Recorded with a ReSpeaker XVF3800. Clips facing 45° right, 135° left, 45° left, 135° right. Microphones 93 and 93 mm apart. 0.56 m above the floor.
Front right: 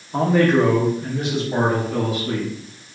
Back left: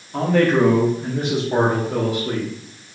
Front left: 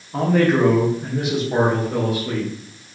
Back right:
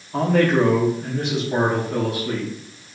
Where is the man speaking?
50° right, 0.8 m; by 2.5 s 120° left, 1.8 m.